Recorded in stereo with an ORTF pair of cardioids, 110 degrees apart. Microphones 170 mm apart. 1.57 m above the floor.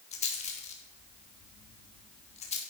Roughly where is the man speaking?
No man speaking in this recording.